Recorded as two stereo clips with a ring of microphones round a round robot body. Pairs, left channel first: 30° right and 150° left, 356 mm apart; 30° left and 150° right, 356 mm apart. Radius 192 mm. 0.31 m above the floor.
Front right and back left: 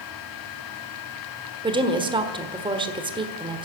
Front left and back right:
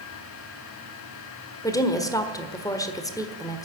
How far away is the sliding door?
I don't hear a sliding door.